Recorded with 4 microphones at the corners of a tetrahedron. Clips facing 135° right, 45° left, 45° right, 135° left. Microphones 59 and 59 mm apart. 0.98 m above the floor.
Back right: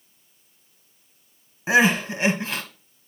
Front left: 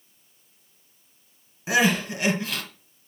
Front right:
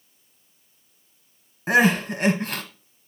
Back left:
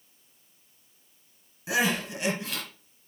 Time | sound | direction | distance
1.7 | crying | 75° right | 1.8 m